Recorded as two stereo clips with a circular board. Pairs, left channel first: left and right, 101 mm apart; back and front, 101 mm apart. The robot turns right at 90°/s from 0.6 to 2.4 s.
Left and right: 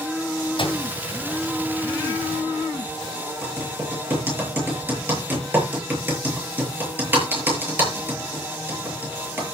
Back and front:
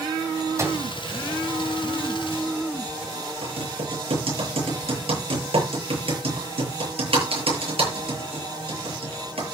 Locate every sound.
0.6 s a microwave: 60° left, 2.5 m; by 0.8 s 80° left, 2.5 m
3.4 s typing on a keyboard: 20° right, 8 m